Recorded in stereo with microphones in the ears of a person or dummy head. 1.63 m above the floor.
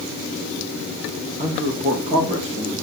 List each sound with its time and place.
1.4 s a man speaking: 45° right (ahead or behind), 3 m; by 2.8 s 35° right (ahead or behind), 2 m